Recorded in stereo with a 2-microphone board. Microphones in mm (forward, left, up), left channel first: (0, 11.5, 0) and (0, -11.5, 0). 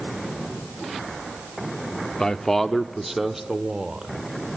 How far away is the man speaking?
About 0.8 m.